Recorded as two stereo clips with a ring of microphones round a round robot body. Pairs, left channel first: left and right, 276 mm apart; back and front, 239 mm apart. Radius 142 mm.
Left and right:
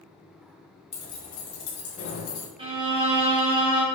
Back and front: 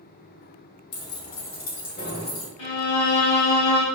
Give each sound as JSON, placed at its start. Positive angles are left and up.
{"t": 0.9, "sound": "keys jangling", "azimuth_deg": 160, "distance_m": 2.0}
{"t": 2.6, "sound": "a violin", "azimuth_deg": -160, "distance_m": 3.0}